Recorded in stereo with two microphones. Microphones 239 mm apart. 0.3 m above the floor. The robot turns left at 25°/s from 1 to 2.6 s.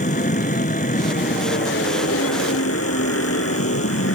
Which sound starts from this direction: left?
An aircraft, at 0.0 s.